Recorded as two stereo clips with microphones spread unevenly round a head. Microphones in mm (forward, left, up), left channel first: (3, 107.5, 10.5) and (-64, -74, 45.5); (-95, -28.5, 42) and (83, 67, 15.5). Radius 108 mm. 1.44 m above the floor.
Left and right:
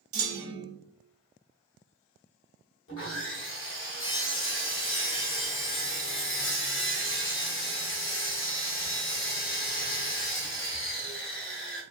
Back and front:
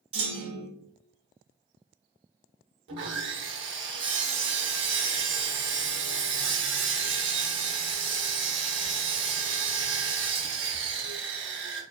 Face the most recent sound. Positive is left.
turn(degrees=55)